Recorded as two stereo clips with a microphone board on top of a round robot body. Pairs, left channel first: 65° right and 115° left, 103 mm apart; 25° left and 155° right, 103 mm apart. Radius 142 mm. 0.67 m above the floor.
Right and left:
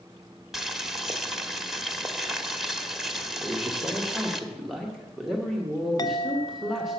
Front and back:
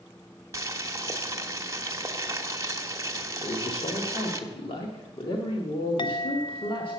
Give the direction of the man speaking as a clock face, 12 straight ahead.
11 o'clock.